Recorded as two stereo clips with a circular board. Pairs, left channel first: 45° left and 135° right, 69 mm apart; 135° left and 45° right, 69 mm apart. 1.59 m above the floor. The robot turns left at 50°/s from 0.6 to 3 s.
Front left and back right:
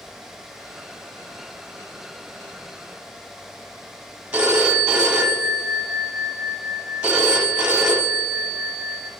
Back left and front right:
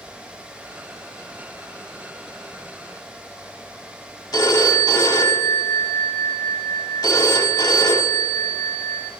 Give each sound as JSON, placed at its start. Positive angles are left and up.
{"t": 4.3, "sound": "a phone ringing", "azimuth_deg": 150, "distance_m": 2.0}